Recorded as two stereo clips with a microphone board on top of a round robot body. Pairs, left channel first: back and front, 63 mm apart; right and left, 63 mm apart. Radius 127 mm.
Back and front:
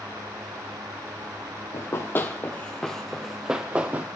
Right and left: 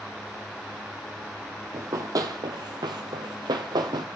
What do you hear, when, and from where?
1.7 s running footsteps: 130° left, 1.4 m; by 4.1 s 65° left, 1.4 m